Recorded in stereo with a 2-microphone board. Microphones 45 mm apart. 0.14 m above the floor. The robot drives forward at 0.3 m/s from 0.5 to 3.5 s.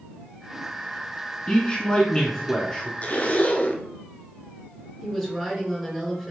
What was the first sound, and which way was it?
A man speaking, 25° left (ahead or behind).